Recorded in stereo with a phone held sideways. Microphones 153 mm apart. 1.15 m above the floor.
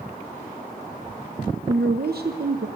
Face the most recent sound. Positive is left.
turn(degrees=-80)